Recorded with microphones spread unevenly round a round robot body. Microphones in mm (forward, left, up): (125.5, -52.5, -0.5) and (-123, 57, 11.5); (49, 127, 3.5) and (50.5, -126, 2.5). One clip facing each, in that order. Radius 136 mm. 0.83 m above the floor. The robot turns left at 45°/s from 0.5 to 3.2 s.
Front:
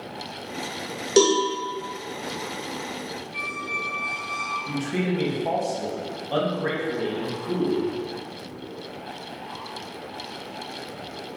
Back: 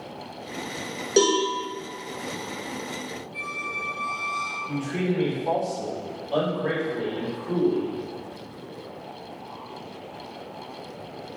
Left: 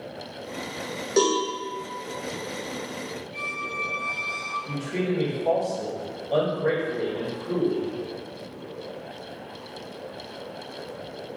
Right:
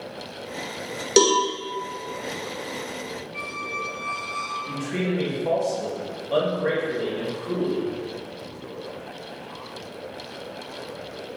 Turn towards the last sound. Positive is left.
turn(degrees=-15)